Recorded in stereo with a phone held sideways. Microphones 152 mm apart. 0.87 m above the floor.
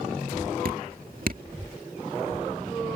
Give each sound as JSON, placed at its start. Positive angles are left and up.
{"t": 0.7, "sound": "dripping", "side_deg": -70}